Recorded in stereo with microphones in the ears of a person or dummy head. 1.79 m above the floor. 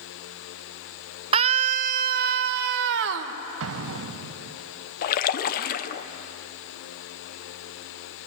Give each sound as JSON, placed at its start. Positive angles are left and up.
{"t": 1.3, "sound": "a scream", "side_deg": -30, "distance_m": 0.9}
{"t": 3.6, "sound": "an explosion", "side_deg": -70, "distance_m": 1.0}
{"t": 5.0, "sound": "a splash", "side_deg": 45, "distance_m": 1.0}